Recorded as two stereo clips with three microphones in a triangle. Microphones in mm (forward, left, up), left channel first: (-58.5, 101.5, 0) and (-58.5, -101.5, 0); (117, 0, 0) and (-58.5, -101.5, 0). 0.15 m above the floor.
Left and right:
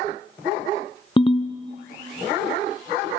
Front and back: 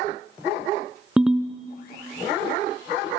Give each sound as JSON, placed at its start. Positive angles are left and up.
{"t": 1.2, "sound": "a ringtone", "azimuth_deg": 125, "distance_m": 0.7}